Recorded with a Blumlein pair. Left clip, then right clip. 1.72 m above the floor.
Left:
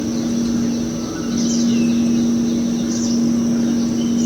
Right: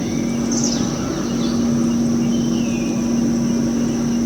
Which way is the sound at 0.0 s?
10° right.